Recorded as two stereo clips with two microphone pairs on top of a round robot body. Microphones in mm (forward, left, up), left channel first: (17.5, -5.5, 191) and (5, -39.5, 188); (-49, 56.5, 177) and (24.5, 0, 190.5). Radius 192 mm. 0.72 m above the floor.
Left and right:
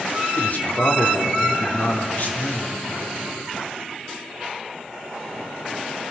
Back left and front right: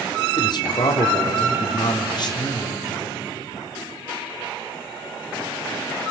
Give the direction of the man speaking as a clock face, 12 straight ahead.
8 o'clock.